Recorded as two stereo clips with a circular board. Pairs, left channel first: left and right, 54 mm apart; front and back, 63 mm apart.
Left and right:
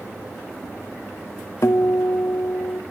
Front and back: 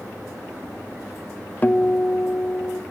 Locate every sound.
1.6 s a guitar: 65° left, 0.7 m